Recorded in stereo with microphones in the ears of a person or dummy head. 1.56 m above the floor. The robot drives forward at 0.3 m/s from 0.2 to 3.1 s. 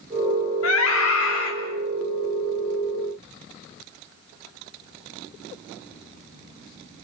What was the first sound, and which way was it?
A scream, 85° left.